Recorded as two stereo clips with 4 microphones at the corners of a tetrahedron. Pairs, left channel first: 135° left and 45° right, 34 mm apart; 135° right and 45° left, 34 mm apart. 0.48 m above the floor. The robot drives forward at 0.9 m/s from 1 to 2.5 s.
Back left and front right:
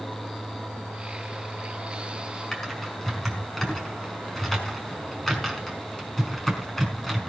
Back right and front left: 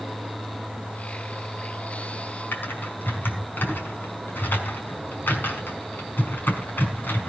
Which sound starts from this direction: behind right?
Typing on a keyboard, at 2.5 s.